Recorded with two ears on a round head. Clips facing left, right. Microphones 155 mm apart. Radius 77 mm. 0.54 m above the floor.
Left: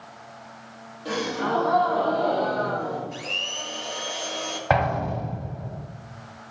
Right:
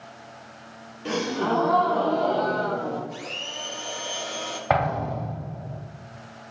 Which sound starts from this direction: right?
A gasp, at 1.1 s.